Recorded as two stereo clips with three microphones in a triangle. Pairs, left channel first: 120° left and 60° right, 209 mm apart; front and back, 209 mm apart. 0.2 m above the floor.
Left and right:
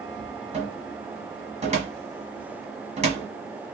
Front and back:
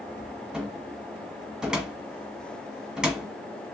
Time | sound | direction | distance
0.5 | a cupboard door | 95° right | 1.2 m